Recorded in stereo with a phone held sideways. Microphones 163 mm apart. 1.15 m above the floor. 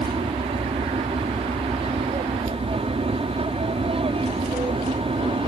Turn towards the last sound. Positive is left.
turn(degrees=-35)  # may be behind; listen again after turning